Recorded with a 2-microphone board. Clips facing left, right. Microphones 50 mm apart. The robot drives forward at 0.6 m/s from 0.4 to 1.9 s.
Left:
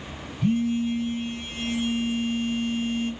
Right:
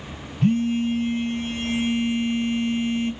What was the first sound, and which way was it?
A phone buzzing, 60° right (ahead or behind).